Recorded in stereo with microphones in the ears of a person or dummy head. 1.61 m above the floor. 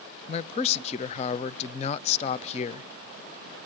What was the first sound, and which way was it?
A man speaking, 40° left (ahead or behind).